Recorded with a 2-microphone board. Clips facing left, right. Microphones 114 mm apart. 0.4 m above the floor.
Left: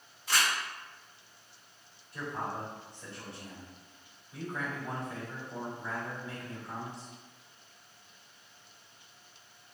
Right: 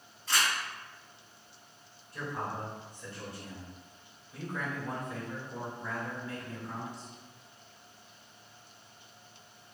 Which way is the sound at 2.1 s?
25° left (ahead or behind).